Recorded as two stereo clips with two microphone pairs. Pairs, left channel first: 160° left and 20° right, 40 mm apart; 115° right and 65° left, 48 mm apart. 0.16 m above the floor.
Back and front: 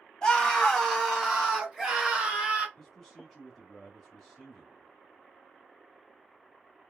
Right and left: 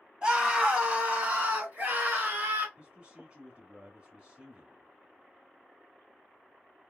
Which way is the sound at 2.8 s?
80° left.